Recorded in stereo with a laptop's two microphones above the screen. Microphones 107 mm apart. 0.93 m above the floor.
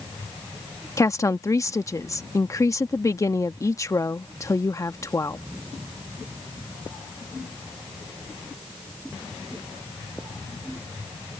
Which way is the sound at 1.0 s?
30° left (ahead or behind).